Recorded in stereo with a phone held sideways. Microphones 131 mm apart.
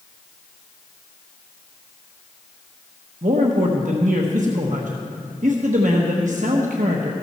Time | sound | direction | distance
3.2 | a man speaking | 75° right (ahead or behind) | 1.1 m